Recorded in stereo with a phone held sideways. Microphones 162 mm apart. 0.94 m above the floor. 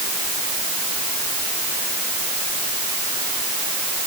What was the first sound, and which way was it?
Only background noise.